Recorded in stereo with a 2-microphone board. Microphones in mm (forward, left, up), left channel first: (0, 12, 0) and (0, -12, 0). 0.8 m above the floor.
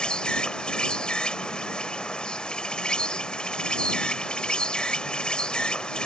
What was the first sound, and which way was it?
An insect, 40° left (ahead or behind).